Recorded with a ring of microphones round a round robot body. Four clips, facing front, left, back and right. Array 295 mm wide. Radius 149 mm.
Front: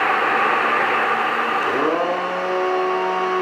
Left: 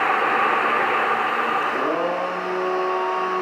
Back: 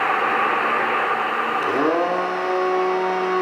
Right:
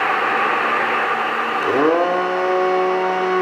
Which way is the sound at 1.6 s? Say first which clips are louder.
Right 6 dB, back 2 dB; 100° right.